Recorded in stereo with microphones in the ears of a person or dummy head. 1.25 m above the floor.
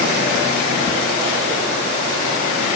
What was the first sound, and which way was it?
Only background noise.